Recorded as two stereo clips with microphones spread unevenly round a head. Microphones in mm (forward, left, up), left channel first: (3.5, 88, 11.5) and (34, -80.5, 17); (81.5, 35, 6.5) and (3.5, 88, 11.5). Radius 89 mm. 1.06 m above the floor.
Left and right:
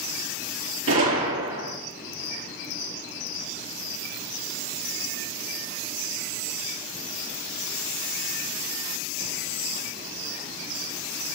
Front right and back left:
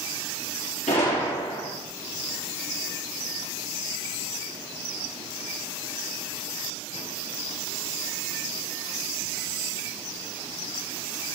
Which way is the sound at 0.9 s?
75° right.